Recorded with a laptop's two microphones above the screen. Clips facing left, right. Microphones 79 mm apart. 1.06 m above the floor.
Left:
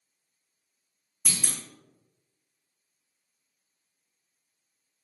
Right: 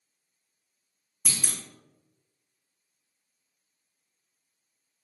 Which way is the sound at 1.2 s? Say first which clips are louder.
Left 1 dB; 10° right (ahead or behind).